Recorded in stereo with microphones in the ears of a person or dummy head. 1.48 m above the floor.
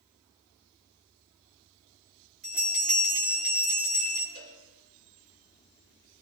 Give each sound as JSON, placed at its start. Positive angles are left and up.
{"t": 2.4, "sound": "a bell", "side_deg": -45, "distance_m": 2.0}
{"t": 4.3, "sound": "a cowbell", "side_deg": -50, "distance_m": 5.0}